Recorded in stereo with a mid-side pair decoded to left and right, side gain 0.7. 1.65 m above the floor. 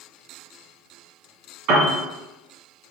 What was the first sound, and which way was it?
A piano, 65° right.